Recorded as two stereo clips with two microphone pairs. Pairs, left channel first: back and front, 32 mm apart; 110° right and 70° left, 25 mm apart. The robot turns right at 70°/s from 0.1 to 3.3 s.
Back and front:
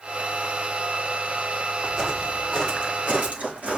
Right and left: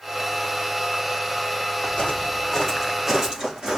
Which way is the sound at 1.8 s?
90° right.